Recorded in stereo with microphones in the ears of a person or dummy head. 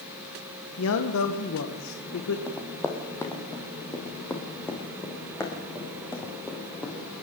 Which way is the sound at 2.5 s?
15° left (ahead or behind).